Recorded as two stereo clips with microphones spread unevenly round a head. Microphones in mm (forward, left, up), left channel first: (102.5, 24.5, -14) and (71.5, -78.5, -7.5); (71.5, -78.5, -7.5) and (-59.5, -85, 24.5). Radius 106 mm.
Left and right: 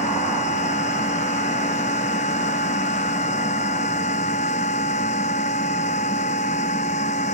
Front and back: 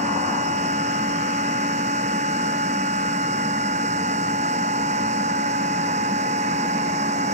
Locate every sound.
0.0 s a machine running: 125° left